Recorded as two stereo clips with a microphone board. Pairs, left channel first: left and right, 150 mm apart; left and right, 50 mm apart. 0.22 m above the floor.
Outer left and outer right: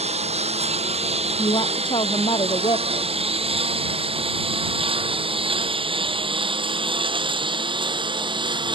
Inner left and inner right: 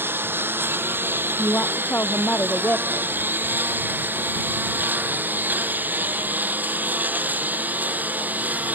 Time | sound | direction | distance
0.0 | a lawn mower | 45° right (ahead or behind) | ?
1.4 | a woman speaking | 35° left (ahead or behind) | ?